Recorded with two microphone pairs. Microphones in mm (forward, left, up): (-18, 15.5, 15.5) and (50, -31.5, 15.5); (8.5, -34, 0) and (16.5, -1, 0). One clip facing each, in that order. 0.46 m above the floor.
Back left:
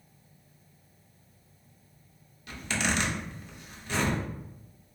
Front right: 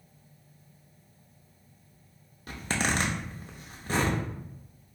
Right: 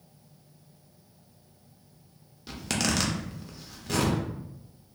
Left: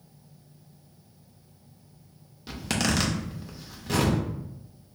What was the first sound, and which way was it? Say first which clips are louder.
A zipper: front right 1 dB, left 2 dB; 5° right.